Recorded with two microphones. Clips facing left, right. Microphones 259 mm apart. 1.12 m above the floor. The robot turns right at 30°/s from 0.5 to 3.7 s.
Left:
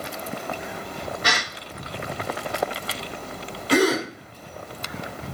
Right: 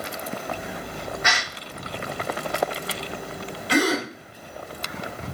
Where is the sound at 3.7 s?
40° left (ahead or behind), 1.9 m.